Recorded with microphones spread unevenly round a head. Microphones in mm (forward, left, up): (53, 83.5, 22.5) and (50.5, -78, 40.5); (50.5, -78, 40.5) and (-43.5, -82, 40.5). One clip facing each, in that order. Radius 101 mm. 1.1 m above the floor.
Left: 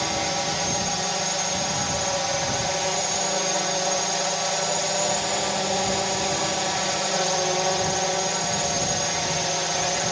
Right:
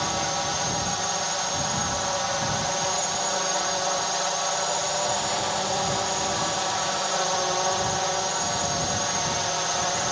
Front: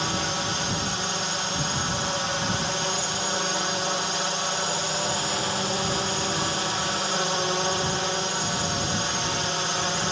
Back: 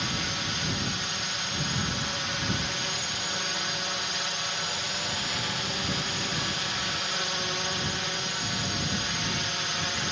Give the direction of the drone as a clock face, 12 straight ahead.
11 o'clock.